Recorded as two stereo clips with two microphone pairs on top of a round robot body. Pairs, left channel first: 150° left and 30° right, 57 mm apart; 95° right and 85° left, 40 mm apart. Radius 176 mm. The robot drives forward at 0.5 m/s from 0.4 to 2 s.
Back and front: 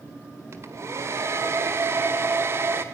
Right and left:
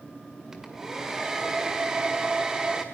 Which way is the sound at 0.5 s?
5° left.